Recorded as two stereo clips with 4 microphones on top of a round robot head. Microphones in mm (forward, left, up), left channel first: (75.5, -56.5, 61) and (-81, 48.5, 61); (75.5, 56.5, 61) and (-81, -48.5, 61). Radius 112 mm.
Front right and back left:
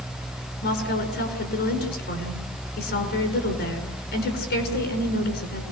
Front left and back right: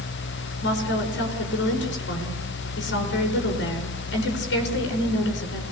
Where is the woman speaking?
5° left, 6.5 m.